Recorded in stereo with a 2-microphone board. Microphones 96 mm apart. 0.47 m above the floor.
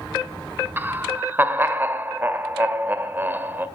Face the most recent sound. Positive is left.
turn(degrees=-20)  # may be behind; listen again after turning